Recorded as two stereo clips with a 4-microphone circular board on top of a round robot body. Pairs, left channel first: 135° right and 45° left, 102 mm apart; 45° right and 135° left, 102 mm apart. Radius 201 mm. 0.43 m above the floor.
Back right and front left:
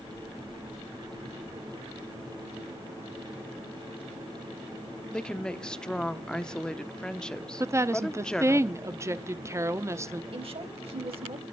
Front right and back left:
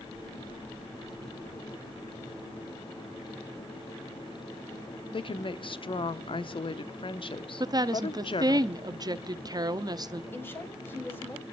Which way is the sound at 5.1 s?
55° right.